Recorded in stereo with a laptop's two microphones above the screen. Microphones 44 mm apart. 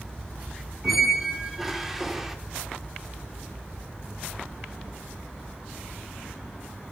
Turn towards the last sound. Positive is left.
turn(degrees=-5)  # may be behind; listen again after turning